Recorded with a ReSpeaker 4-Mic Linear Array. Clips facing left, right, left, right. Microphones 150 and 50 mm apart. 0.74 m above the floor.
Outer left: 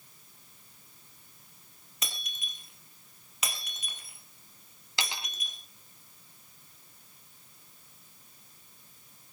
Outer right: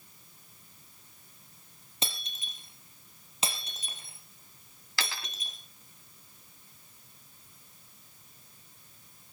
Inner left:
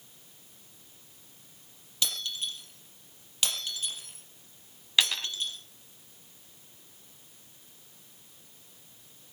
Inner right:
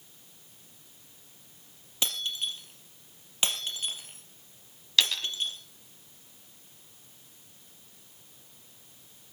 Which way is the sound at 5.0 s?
20° left (ahead or behind).